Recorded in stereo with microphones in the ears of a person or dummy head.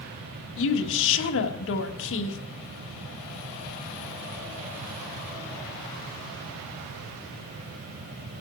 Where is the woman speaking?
75° left (ahead or behind), 1.4 m.